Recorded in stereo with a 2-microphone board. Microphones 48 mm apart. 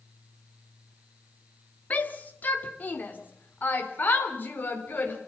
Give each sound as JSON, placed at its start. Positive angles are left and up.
{"t": 1.9, "sound": "a shout", "side_deg": 30, "distance_m": 2.0}